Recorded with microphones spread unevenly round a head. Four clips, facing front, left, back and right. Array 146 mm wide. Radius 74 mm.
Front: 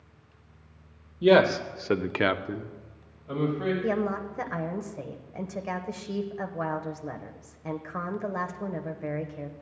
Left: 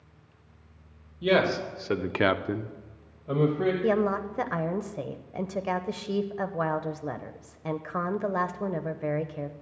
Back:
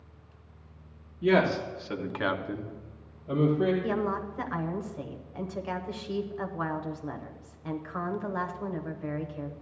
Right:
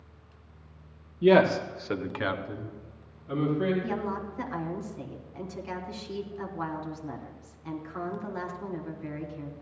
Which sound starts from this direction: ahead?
A man speaking, at 1.2 s.